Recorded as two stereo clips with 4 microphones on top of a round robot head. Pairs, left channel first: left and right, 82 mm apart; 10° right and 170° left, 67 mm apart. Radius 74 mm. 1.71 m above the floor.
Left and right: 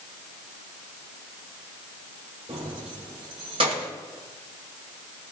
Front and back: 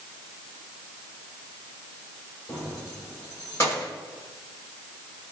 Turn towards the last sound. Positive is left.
turn(degrees=-80)